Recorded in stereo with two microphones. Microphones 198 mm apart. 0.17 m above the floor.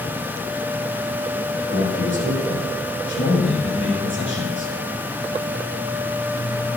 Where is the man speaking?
70° left (ahead or behind), 7.5 m.